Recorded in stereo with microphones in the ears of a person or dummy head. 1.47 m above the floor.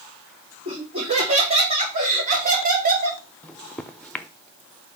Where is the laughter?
30° right (ahead or behind), 4 m; by 3.2 s 50° right (ahead or behind), 3 m.